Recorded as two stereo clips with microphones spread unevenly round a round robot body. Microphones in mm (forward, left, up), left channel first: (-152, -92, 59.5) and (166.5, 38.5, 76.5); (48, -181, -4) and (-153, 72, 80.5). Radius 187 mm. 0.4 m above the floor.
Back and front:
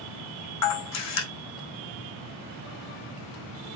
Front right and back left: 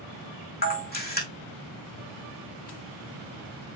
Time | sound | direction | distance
0.6 | a camera shutter | 115° right | 4 m